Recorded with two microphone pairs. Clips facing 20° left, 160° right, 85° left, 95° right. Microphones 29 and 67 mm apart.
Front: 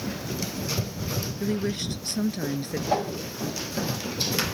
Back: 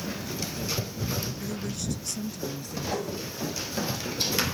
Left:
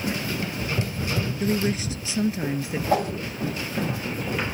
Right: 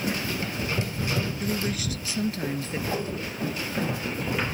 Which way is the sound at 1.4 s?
40° left.